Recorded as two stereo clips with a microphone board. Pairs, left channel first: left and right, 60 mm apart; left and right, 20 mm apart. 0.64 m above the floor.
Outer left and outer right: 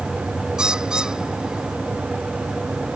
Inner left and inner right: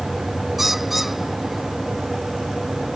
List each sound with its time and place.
0.6 s a bird: 10° right (ahead or behind)